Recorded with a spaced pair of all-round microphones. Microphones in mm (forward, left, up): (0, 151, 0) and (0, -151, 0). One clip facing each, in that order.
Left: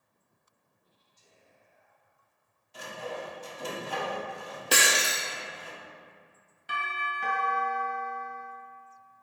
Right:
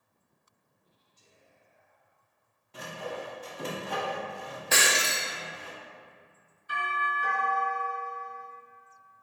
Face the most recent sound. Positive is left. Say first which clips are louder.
# right 3 dB
turn(degrees=80)